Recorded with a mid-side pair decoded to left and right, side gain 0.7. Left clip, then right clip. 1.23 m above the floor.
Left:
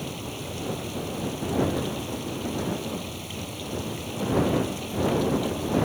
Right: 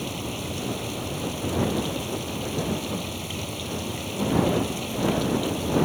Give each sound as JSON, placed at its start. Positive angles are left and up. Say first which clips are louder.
{"t": 0.0, "sound": "running water", "louder": "right 3 dB", "azimuth_deg": -15}